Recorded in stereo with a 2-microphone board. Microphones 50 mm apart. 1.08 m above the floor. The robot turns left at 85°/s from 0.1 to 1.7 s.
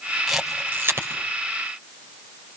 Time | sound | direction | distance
0.3 | a camera shutter | centre (ahead or behind) | 4.5 m